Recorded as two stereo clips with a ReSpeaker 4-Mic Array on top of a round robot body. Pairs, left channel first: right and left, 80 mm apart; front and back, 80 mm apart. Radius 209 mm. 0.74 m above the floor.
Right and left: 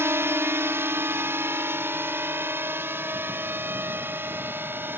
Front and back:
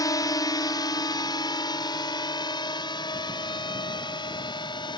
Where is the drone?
35° left; by 5.0 s 25° left.